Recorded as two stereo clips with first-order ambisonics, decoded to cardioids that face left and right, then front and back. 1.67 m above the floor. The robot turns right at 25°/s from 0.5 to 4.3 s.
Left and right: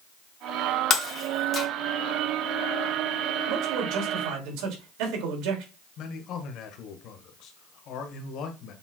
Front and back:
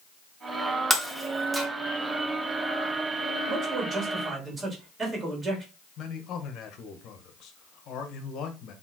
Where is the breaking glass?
90° left, 1.3 m; by 1.7 s 110° left, 1.3 m.